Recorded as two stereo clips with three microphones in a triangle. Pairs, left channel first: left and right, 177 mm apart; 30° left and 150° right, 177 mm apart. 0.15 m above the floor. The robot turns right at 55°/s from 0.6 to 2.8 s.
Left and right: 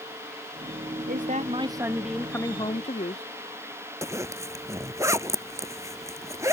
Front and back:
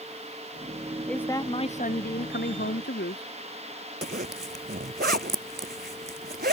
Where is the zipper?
165° right.